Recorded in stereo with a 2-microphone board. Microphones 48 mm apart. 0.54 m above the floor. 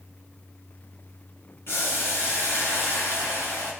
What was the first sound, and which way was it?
Boiling, 60° left (ahead or behind).